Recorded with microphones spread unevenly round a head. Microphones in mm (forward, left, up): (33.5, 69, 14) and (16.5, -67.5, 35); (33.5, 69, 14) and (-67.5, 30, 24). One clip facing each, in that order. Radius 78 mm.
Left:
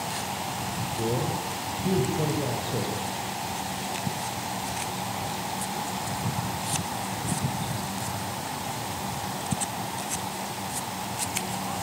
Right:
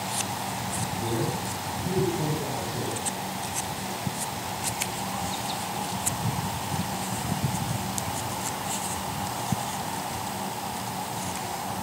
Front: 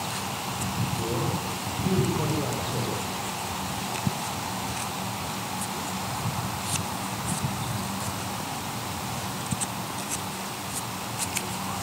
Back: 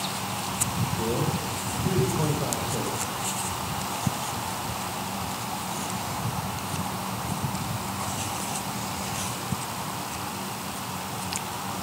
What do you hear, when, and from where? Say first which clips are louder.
1.0 s a man speaking: left 2 dB, back 3 dB; 125° left, 6.5 m; by 3.0 s 115° left, 7 m